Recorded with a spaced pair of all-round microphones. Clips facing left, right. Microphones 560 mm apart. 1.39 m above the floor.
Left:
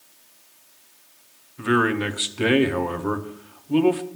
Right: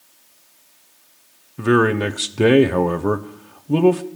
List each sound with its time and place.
1.6 s a man speaking: 65° right (ahead or behind), 0.8 m